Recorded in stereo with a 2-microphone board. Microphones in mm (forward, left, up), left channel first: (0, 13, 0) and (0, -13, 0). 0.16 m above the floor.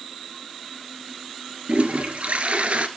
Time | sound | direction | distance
1.7 | a toilet flushing | 65° right (ahead or behind) | 1.3 m